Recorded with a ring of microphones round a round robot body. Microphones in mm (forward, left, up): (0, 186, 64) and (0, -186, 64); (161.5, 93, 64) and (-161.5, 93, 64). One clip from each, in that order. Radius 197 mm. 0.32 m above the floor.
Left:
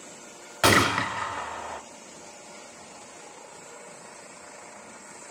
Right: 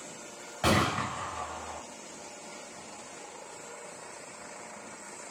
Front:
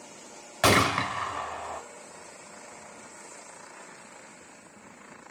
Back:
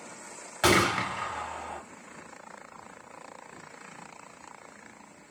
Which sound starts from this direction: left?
A gunshot, at 0.6 s.